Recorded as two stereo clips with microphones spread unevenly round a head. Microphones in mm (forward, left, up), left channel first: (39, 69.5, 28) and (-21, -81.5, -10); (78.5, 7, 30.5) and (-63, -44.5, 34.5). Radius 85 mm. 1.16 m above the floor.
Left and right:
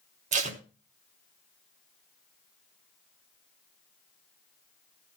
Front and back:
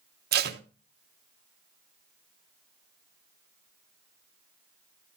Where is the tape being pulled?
150° right, 1.0 m.